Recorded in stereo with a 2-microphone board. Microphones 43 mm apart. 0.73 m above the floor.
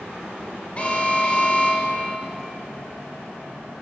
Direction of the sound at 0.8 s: 30° left (ahead or behind).